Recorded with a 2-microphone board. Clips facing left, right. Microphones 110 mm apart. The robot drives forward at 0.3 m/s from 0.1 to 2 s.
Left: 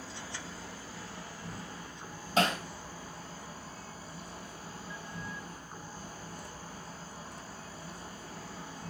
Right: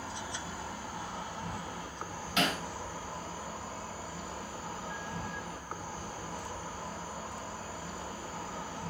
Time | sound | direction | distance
0.0 | an insect | 70° right (ahead or behind) | 2.5 m
2.4 | hammering | 40° left (ahead or behind) | 3.5 m